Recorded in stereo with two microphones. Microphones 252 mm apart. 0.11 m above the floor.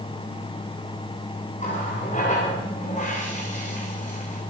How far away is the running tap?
About 7 m.